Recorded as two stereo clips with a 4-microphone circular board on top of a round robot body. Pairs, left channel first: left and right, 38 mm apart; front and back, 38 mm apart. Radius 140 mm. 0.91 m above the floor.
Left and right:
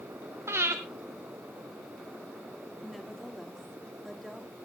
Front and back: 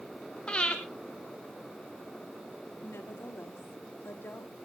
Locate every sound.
0.5 s breathing: 75° right, 0.7 m
2.8 s a woman speaking: straight ahead, 2 m